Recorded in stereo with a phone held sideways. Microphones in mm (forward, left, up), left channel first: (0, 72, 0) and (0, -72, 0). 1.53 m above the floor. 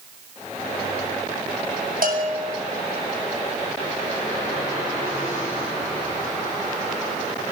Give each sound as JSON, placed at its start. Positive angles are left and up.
{"t": 2.0, "sound": "a bell", "side_deg": -85, "distance_m": 7.0}